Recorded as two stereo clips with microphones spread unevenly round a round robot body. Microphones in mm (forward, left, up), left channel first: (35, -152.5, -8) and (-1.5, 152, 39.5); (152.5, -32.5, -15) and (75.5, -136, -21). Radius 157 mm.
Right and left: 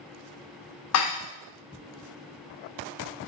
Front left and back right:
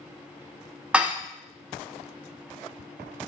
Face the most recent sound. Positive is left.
turn(degrees=-45)